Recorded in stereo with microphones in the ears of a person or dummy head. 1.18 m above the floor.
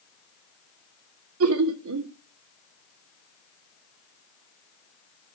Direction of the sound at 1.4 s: 80° right.